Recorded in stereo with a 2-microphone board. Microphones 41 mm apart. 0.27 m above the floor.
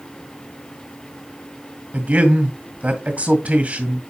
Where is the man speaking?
40° right (ahead or behind), 1.9 m.